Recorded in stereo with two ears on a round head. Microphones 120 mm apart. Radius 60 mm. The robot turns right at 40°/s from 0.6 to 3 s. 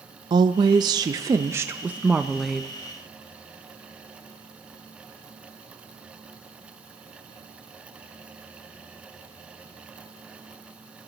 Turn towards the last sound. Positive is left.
turn(degrees=20)